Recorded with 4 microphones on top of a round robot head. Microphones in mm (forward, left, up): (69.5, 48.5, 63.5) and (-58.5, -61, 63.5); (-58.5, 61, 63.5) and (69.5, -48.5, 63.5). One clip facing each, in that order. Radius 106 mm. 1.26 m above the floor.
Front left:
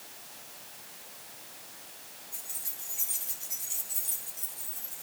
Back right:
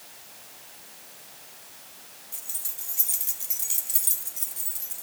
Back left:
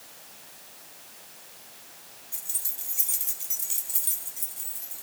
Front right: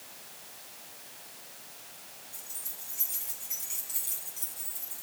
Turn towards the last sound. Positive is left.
turn(degrees=-135)